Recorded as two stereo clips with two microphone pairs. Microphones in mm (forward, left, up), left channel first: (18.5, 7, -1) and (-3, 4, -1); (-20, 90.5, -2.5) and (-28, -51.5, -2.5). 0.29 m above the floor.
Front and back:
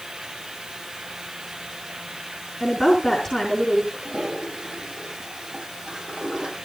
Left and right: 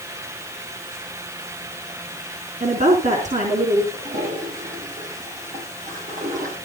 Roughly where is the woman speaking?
Right.